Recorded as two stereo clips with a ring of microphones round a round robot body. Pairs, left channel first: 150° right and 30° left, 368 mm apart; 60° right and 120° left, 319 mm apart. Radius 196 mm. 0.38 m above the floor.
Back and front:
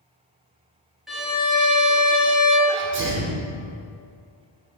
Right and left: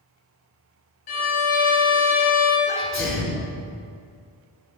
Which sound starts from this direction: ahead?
A sneeze, at 2.7 s.